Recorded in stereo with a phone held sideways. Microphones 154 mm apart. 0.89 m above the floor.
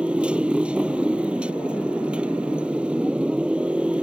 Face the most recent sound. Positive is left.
turn(degrees=-5)  # may be behind; listen again after turning